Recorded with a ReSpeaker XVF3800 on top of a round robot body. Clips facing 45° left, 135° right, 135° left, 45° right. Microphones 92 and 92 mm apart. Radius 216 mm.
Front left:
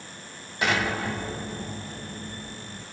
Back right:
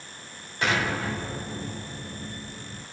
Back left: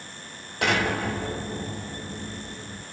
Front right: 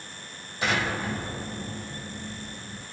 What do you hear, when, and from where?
0.6 s an explosion: 130° left, 2 m